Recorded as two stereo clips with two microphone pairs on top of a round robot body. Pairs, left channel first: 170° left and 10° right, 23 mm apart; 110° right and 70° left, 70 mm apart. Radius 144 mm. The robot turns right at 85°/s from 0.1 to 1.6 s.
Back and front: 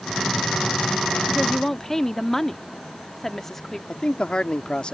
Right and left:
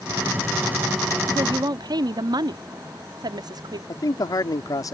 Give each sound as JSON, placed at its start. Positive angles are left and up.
{"t": 1.3, "sound": "a woman speaking", "azimuth_deg": 65}
{"t": 3.9, "sound": "a man speaking", "azimuth_deg": -145}